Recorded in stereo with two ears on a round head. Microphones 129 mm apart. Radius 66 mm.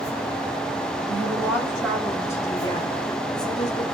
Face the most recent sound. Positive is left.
turn(degrees=50)  # may be behind; listen again after turning